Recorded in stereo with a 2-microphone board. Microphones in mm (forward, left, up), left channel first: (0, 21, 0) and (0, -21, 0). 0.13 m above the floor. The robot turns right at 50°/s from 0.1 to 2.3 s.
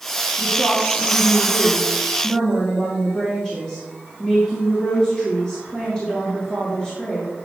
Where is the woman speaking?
65° left, 2.5 m; by 7.3 s 160° left, 2.5 m.